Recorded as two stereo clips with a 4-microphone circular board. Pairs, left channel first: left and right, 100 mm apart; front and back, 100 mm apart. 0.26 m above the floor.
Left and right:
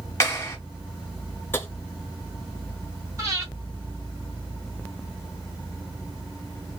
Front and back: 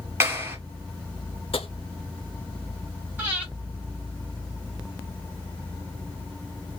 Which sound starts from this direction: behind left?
A clap, at 0.2 s.